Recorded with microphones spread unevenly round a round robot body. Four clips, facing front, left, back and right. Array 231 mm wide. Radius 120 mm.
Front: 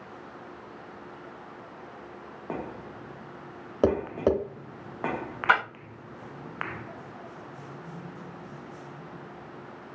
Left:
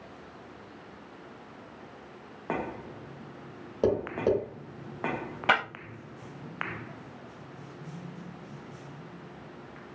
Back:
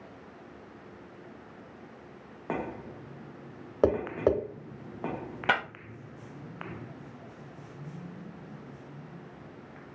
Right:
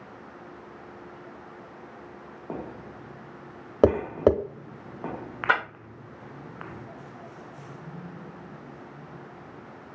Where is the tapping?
65° right, 0.7 m.